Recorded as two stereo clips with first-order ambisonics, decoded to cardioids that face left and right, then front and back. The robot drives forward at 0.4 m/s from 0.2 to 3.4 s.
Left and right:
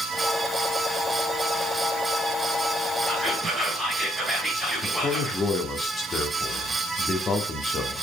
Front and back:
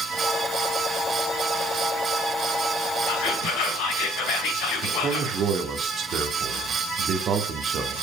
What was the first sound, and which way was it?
Whispering, straight ahead.